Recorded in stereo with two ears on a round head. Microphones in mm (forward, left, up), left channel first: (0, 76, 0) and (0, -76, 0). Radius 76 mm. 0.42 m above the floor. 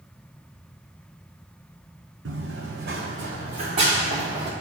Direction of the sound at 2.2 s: 75° right (ahead or behind).